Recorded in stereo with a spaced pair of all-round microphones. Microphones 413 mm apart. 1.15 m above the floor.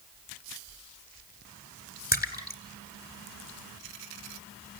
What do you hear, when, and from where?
2.1 s a splash: 20° left (ahead or behind), 2.5 m